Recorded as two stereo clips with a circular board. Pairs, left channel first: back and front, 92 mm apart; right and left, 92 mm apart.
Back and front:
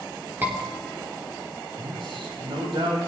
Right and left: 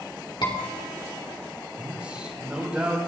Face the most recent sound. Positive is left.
turn(degrees=15)